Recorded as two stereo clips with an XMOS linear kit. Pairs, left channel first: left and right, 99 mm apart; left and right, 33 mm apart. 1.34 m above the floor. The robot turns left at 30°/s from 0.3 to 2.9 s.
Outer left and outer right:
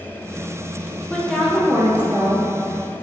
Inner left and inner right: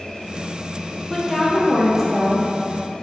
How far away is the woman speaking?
About 0.9 m.